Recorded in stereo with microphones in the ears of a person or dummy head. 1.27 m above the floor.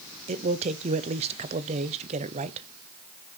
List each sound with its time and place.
0.3 s a man speaking: 30° right (ahead or behind), 0.6 m